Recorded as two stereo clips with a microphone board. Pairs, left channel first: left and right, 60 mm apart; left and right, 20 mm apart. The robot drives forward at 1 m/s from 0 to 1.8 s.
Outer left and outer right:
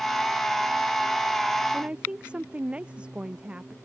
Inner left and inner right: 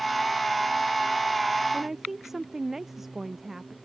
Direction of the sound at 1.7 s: 20° right (ahead or behind).